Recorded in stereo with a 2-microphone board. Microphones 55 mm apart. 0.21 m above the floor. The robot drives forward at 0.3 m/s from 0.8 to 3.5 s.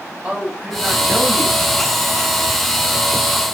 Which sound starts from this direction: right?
A man speaking, at 0.2 s.